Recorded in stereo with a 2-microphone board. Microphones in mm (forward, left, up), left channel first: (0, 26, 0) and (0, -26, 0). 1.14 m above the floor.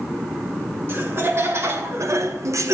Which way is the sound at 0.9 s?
50° right (ahead or behind).